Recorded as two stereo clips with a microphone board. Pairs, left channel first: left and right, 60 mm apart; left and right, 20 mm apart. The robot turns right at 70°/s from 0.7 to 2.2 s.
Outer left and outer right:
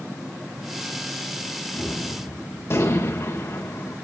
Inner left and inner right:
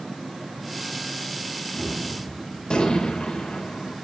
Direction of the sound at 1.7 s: 20° left.